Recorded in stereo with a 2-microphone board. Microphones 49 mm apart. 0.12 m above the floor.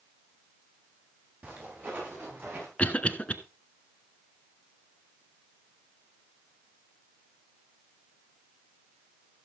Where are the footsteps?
45° right (ahead or behind), 10 m; by 2.7 s 50° right (ahead or behind), 8.5 m.